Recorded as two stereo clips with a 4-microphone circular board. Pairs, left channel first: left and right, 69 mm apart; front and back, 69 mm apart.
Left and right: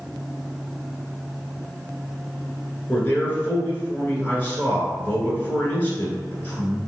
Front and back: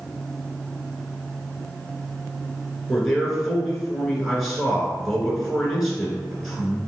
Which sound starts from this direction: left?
A man speaking, at 2.9 s.